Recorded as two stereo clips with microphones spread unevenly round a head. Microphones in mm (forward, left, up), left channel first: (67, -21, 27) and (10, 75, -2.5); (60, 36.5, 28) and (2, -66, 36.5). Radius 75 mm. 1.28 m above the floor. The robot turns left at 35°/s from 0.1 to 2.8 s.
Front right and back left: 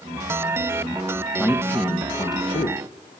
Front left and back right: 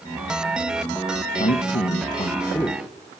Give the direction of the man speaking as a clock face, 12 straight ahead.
11 o'clock.